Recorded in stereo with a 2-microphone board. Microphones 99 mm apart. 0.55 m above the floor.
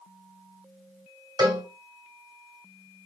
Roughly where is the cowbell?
Right.